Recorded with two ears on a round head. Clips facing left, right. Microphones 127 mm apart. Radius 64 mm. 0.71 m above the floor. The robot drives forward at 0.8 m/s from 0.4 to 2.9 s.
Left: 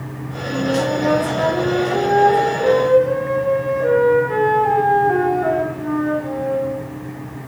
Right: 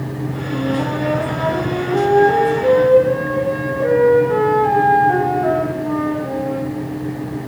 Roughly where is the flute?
Centre.